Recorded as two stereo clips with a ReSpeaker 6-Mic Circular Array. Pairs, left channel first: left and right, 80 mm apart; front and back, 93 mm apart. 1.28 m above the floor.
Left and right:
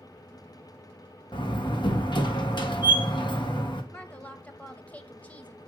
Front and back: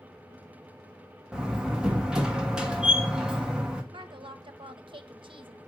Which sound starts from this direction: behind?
A woman speaking, at 3.9 s.